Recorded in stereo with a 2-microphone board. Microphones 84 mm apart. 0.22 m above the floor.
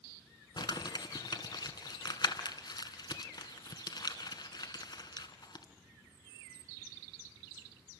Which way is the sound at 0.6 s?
60° left (ahead or behind).